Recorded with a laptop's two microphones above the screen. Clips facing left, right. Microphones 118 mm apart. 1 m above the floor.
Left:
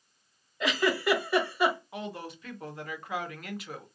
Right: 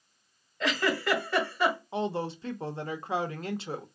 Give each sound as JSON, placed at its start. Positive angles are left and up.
{"t": 0.6, "sound": "a giggle", "side_deg": 10, "distance_m": 1.5}
{"t": 1.9, "sound": "a woman speaking", "side_deg": -30, "distance_m": 0.6}